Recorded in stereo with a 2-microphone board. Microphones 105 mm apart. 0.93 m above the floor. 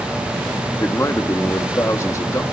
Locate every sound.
0.8 s a man speaking: 30° left (ahead or behind), 1.5 m